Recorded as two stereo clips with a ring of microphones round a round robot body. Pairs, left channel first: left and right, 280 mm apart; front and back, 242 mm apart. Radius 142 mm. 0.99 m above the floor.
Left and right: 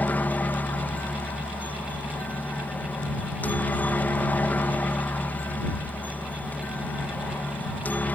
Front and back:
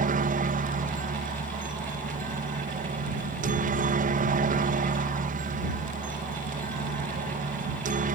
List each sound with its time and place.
0.0 s a helicopter: 170° left